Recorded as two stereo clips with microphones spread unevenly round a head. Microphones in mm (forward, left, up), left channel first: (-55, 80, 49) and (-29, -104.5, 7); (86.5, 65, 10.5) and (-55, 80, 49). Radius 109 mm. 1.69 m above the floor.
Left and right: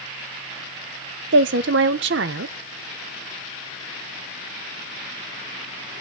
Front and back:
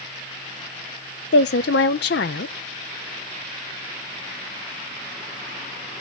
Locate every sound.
1.3 s a woman speaking: 40° right, 0.5 m